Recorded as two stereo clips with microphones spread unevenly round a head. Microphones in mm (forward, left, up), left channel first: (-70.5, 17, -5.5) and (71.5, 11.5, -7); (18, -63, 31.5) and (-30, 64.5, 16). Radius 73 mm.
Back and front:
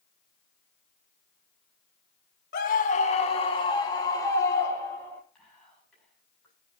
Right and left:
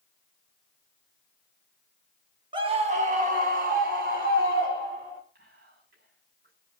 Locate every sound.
2.5 s a scream: 160° left, 1.5 m; by 5.2 s 105° left, 5 m
5.3 s whispering: 95° left, 7 m